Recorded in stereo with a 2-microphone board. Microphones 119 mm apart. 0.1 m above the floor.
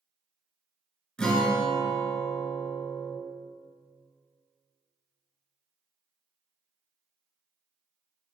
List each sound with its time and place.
1.2 s a guitar: 5° left (ahead or behind), 1.6 m